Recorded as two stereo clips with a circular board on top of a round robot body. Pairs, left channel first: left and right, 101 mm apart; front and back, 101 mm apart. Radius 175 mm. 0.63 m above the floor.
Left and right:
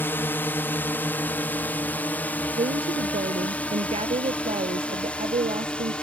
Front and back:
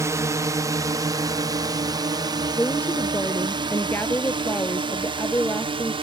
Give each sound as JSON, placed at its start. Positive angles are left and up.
{"t": 0.0, "sound": "a drone", "azimuth_deg": 145}
{"t": 2.6, "sound": "a woman speaking", "azimuth_deg": -75}